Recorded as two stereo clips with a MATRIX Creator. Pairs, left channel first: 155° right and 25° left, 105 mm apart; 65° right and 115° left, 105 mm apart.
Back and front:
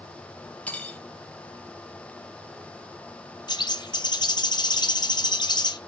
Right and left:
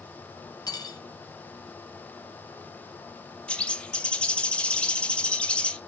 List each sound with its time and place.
0.7 s cutlery clinking: 90° right, 0.6 m
3.5 s a bird: 145° right, 0.5 m